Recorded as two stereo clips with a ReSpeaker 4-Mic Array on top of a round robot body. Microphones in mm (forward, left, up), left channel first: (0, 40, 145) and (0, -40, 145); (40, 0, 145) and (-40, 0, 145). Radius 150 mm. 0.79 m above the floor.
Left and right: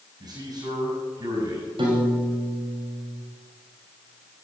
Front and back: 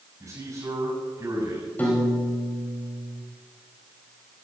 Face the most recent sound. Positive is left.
turn(degrees=-70)